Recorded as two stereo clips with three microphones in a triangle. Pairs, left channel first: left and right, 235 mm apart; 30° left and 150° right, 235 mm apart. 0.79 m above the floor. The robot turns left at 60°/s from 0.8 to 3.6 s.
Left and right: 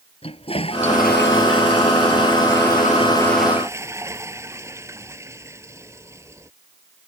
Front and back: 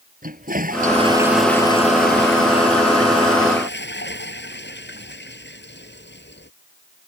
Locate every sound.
0.2 s a toilet flushing: 155° left; by 6.5 s 10° right